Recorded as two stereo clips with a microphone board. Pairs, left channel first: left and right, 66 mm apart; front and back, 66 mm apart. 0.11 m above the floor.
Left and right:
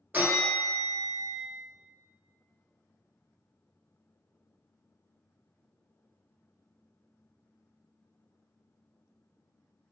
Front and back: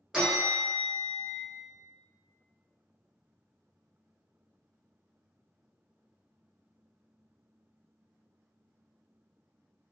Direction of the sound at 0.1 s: 110° right.